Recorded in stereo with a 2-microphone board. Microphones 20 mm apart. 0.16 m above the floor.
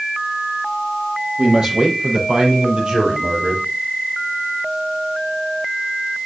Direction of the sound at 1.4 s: 50° right (ahead or behind).